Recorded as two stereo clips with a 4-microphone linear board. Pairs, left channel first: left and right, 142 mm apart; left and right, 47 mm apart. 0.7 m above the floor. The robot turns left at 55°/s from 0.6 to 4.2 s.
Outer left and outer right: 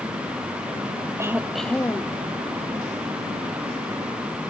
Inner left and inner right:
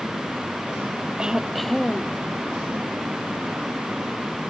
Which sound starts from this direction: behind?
Throat clearing, at 1.2 s.